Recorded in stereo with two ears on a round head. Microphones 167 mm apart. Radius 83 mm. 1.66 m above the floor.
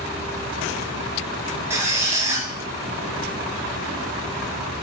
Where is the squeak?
15° right (ahead or behind), 1.8 m.